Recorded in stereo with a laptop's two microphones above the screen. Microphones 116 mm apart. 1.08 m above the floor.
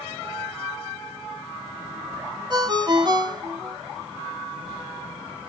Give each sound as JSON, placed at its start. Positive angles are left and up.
{"t": 2.5, "sound": "a ringtone", "side_deg": -40, "distance_m": 0.8}